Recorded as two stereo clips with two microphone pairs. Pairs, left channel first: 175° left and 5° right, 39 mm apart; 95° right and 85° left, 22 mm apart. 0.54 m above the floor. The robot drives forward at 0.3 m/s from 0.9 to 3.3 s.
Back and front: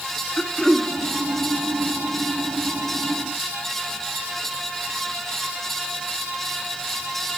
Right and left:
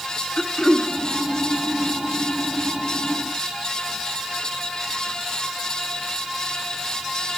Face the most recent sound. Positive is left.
turn(degrees=-150)